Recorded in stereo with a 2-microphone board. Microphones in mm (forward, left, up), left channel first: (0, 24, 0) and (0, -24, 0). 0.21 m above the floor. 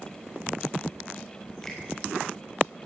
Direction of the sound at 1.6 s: 15° left (ahead or behind).